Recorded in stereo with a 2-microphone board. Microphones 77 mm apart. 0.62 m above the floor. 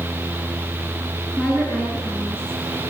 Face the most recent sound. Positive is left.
turn(degrees=15)  # may be behind; listen again after turning